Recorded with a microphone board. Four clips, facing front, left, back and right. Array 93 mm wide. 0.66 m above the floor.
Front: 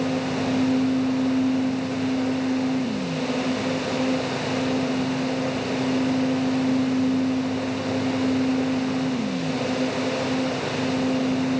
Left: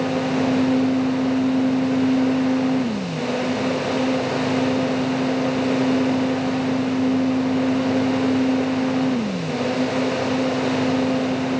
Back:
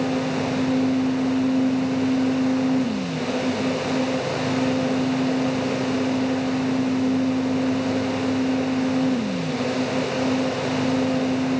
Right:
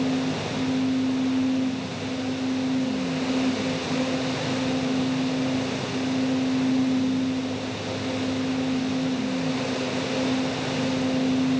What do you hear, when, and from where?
Only background noise.